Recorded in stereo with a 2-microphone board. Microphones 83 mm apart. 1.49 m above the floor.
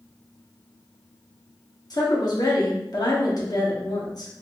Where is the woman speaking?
55° left (ahead or behind), 1.2 m.